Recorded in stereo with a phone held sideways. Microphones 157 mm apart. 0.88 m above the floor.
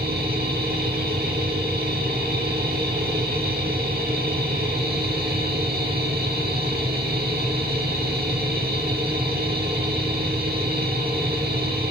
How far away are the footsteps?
No footsteps in this recording.